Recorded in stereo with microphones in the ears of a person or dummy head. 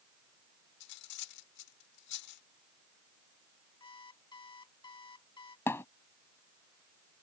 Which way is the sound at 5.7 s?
15° left (ahead or behind).